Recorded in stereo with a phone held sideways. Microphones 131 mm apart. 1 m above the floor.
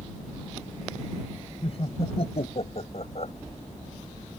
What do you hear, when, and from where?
1.6 s laughter: 50° left (ahead or behind); by 3.3 s 55° left (ahead or behind)